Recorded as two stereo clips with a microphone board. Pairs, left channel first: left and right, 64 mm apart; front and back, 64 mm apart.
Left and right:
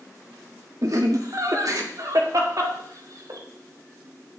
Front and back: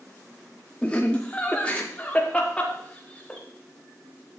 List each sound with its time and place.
0.8 s laughter: 70° right, 1.8 m